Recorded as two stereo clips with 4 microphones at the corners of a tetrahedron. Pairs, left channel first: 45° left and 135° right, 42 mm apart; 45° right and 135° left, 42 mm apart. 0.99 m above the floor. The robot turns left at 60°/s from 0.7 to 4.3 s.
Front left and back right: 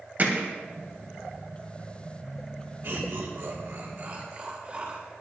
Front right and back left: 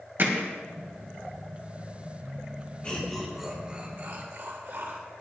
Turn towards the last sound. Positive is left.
turn(degrees=165)